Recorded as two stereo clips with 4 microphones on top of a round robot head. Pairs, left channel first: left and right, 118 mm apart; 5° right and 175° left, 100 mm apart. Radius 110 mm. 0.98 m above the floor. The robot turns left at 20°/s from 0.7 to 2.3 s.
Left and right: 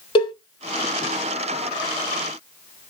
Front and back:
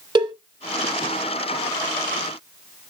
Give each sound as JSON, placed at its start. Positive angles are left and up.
{"t": 0.1, "sound": "a cowbell", "azimuth_deg": 135, "distance_m": 1.1}